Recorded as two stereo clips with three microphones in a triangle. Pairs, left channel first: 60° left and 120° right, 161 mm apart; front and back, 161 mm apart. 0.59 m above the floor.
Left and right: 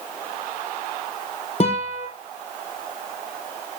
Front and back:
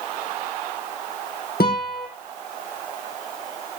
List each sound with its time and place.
1.6 s a guitar: 10° left, 4 m